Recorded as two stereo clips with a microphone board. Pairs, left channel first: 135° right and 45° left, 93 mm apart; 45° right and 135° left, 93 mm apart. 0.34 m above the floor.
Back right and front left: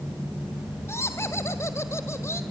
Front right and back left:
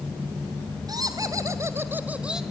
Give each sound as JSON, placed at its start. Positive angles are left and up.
{"t": 0.9, "sound": "laughter", "azimuth_deg": 170, "distance_m": 2.5}